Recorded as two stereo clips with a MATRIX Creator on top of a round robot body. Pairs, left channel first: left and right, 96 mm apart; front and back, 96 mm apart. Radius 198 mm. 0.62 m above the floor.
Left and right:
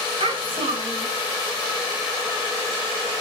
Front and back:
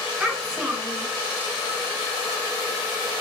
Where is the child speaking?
100° right, 6.5 m.